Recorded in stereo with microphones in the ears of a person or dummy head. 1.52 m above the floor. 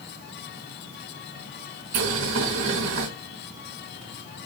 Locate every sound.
1.9 s boiling: 75° right (ahead or behind), 4 m